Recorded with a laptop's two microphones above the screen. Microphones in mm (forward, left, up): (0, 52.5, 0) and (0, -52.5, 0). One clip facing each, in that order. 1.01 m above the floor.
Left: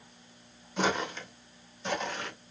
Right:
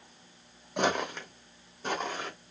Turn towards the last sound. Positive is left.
turn(degrees=-40)  # may be behind; listen again after turning